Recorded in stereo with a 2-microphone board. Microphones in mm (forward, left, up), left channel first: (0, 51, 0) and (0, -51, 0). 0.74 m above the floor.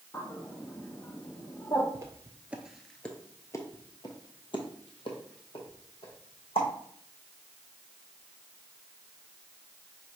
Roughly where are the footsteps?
Right.